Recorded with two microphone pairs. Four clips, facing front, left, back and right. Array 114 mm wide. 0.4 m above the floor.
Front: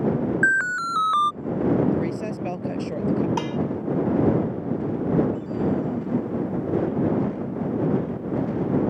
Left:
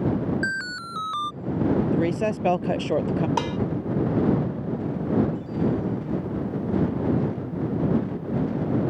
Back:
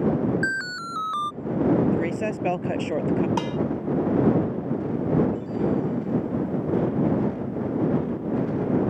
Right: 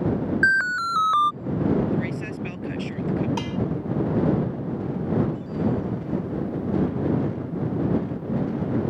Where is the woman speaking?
110° left.